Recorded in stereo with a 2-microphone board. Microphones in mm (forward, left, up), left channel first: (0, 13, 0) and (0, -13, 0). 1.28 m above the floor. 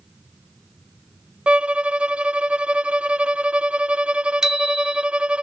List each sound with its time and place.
1.5 s a violin: 40° right (ahead or behind)
4.4 s a bicycle bell: 30° right (ahead or behind)